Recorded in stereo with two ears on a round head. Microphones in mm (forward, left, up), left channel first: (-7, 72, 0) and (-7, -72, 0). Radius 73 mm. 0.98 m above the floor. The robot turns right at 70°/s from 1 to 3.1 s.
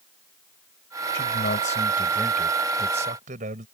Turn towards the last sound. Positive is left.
turn(degrees=-130)